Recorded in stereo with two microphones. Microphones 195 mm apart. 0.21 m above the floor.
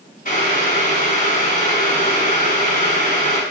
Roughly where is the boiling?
Left.